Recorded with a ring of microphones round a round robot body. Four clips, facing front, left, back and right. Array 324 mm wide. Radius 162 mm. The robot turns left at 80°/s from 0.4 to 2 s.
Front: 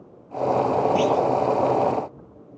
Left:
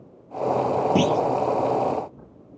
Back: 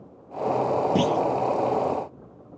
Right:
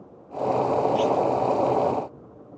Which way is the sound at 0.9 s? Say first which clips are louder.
Left 1 dB, front 2 dB; 125° left.